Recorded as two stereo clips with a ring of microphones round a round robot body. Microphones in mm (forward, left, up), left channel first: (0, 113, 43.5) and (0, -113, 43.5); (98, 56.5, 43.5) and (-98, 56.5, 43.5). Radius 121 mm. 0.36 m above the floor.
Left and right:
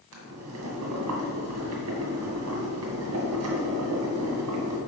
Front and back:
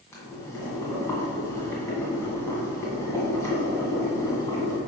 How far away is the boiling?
About 1.8 m.